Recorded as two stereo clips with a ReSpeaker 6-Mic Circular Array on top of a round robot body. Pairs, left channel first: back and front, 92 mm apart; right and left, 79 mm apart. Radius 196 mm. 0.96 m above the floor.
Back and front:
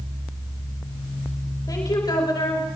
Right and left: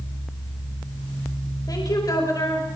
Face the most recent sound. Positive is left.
turn(degrees=-140)